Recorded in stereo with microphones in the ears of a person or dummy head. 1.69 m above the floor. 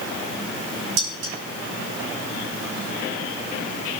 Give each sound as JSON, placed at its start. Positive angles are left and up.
{"t": 1.0, "sound": "dishes clattering", "side_deg": -60, "distance_m": 1.6}